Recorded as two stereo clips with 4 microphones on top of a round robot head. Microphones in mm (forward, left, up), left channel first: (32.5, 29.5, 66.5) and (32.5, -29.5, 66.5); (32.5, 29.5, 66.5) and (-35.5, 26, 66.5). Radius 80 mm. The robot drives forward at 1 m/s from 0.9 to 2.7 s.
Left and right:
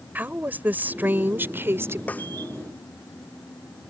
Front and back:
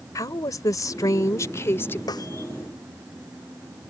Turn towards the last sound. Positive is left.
turn(degrees=25)